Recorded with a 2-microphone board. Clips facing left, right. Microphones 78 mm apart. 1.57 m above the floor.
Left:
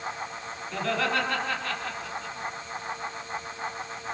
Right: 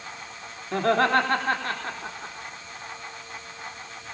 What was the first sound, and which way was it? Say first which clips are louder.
Laughter: right 7 dB; 50° right (ahead or behind).